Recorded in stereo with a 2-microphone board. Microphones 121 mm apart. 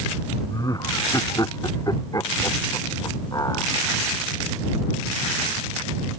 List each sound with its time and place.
0.5 s laughter: 30° left (ahead or behind)